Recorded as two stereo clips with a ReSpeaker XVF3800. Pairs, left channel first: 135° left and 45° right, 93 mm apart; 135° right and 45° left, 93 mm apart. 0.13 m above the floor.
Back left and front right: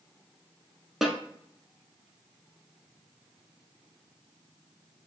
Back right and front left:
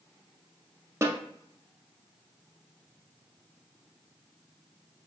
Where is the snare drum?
40° left, 0.7 m.